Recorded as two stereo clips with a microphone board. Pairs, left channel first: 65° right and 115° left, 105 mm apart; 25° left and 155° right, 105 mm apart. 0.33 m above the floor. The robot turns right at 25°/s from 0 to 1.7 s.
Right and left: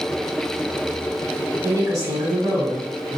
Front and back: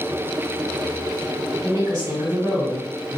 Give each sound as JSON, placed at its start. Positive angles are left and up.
{"t": 1.6, "sound": "a woman speaking", "azimuth_deg": 160, "distance_m": 1.8}